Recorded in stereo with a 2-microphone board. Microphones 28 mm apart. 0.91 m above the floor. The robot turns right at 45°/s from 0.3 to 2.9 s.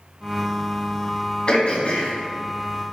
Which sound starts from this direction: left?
Throat clearing, at 1.5 s.